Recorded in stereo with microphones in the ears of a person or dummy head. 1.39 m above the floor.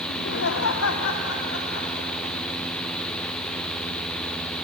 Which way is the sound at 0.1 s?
55° left (ahead or behind).